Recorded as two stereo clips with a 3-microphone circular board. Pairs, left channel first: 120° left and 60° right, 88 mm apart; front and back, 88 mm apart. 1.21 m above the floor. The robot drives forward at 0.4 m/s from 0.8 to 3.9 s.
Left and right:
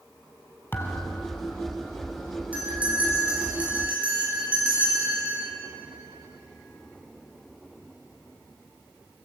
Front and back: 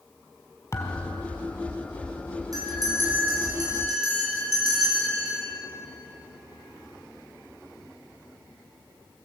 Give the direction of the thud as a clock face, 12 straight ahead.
10 o'clock.